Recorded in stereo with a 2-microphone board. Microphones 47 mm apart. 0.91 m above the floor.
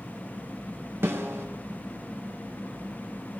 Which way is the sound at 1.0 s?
65° right (ahead or behind).